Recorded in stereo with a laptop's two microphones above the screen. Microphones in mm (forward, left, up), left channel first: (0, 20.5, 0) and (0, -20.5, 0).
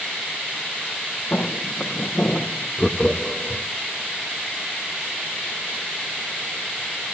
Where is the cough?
I don't hear a cough.